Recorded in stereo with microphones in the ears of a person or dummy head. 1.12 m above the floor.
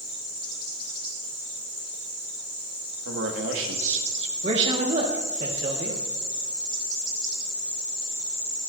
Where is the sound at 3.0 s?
65° right (ahead or behind), 1.9 m.